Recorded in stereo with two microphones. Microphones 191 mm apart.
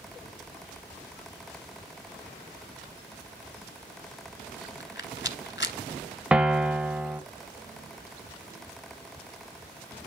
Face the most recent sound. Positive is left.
turn(degrees=-5)  # may be behind; listen again after turning